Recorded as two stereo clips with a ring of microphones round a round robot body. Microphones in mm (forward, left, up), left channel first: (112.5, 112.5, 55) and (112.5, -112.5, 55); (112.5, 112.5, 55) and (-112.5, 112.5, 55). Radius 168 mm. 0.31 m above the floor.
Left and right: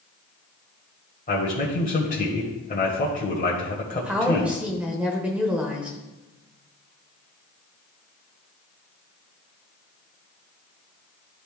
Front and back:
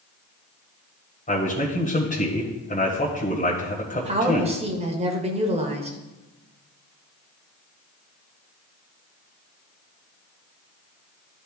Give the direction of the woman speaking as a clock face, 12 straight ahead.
6 o'clock.